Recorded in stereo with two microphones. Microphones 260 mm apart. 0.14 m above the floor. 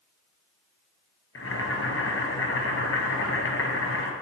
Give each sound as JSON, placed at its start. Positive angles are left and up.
{"t": 1.4, "sound": "boiling", "side_deg": 60, "distance_m": 0.9}